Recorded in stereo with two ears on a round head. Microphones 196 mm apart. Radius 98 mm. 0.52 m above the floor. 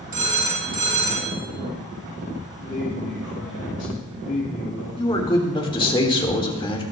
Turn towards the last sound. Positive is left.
turn(degrees=25)  # may be behind; listen again after turning